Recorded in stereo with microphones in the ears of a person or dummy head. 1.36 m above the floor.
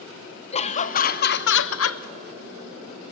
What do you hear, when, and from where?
0.5 s laughter: 25° left (ahead or behind), 1.1 m; by 2.0 s 70° left (ahead or behind), 0.7 m